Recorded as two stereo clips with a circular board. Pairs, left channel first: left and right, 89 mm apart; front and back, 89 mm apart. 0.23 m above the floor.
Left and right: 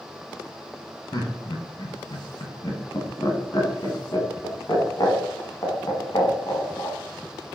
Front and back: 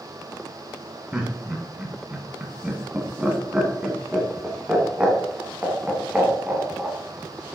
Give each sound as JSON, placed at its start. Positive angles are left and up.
{"t": 1.1, "sound": "laughter", "azimuth_deg": 105, "distance_m": 2.0}